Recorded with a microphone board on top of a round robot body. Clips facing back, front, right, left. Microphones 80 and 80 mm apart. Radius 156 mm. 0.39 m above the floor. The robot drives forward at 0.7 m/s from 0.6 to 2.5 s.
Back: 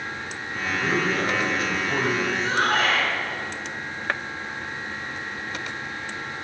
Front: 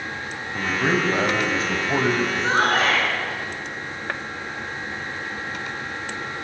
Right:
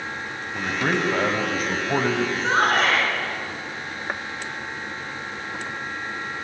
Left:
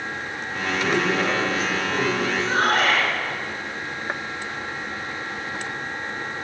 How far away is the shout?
About 5.5 m.